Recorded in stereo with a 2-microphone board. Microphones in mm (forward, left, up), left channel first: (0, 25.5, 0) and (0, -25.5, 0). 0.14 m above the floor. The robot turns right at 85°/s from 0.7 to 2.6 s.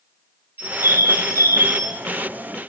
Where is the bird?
140° right, 2 m; by 2.0 s 30° right, 2 m.